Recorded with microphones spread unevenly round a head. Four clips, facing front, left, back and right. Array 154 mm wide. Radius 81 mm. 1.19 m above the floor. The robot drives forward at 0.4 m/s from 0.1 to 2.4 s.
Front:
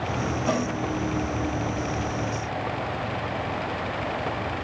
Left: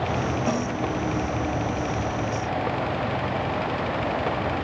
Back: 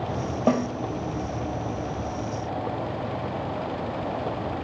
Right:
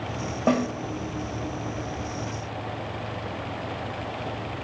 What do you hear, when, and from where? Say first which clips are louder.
0.5 s a snare drum: right 6 dB, back 4 dB; 160° right, 2.5 m